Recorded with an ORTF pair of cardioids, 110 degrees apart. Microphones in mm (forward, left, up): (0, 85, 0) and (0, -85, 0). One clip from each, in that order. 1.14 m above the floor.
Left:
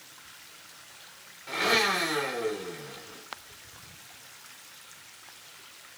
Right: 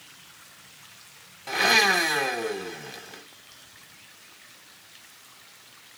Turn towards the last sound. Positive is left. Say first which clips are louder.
# right 5 dB
turn(degrees=-50)